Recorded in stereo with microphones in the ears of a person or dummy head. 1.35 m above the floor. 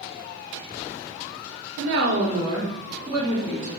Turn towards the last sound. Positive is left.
turn(degrees=10)  # may be behind; listen again after turning